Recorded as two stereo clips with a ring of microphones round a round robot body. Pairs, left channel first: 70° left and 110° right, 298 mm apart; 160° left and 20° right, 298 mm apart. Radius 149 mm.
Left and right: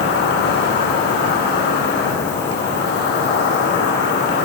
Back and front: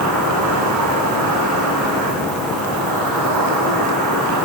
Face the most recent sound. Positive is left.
turn(degrees=10)